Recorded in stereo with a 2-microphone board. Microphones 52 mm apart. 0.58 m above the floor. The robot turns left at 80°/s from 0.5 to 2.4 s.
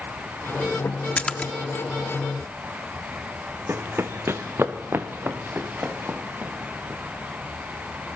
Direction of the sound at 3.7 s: 50° right (ahead or behind).